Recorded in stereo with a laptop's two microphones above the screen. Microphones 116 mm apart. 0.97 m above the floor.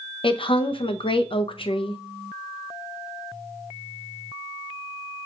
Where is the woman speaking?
50° left (ahead or behind), 0.5 m.